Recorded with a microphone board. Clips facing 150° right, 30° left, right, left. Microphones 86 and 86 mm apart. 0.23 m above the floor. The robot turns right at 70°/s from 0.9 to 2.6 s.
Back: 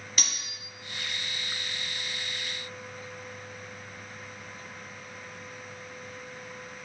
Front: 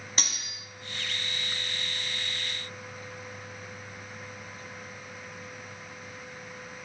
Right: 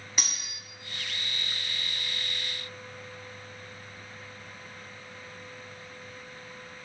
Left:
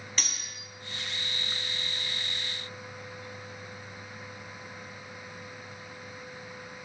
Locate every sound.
0.2 s cutlery clinking: 15° right, 0.8 m